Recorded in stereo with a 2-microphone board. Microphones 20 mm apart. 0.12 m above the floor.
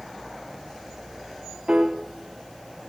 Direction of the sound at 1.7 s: 60° right (ahead or behind).